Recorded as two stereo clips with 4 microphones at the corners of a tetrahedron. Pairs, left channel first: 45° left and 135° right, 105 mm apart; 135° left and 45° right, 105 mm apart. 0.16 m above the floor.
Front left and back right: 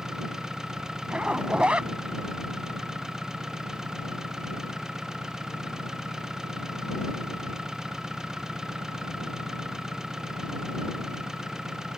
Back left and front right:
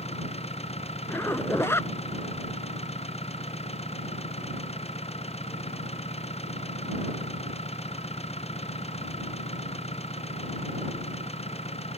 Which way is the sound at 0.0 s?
140° left.